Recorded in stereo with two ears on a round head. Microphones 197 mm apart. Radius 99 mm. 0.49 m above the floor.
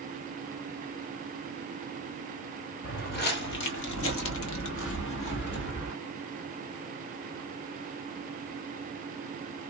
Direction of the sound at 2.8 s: 40° left (ahead or behind).